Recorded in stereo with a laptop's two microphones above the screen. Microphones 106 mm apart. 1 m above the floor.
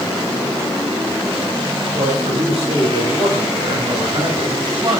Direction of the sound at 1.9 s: 80° right.